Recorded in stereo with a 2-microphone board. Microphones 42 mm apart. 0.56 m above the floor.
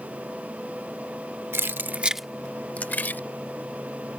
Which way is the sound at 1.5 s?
65° right (ahead or behind).